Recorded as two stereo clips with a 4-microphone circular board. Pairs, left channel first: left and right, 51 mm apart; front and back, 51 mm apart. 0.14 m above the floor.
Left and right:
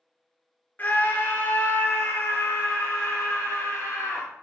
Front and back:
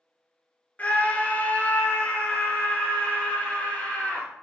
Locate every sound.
0.8 s a scream: 50° left, 1.6 m; by 4.3 s 55° left, 3.5 m